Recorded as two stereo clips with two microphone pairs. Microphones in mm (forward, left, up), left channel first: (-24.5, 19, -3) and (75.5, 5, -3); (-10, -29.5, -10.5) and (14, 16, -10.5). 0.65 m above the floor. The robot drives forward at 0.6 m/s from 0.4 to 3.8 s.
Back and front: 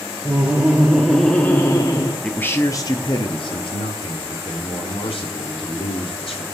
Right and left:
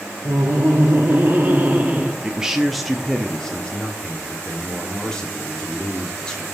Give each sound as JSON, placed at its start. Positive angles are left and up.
{"t": 0.2, "sound": "laughter", "azimuth_deg": 55, "distance_m": 1.0}
{"t": 2.2, "sound": "a man speaking", "azimuth_deg": 105, "distance_m": 0.6}